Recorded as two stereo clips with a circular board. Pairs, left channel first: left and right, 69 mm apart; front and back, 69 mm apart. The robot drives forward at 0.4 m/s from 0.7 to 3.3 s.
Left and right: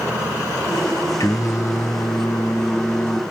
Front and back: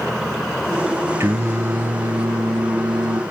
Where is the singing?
130° left, 1.0 m; by 3.2 s 150° left, 1.7 m.